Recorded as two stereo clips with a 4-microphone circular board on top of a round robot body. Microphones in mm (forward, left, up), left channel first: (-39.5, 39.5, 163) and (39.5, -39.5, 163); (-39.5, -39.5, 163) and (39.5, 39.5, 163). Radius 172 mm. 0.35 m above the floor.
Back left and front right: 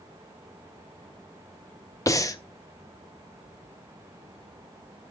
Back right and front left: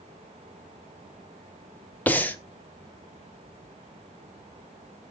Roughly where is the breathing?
Behind.